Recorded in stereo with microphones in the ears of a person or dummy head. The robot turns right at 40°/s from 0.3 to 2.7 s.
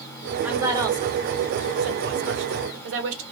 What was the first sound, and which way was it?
A woman speaking, 5° right (ahead or behind).